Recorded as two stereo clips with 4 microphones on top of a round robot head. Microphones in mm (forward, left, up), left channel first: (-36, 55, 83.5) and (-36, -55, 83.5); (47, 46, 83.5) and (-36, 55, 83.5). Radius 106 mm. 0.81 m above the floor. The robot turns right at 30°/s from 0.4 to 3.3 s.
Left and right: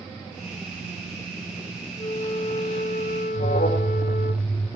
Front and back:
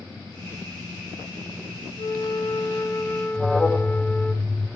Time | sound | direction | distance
2.0 | a flute | 25° left | 1.1 m
3.3 | an alarm | 75° left | 4.5 m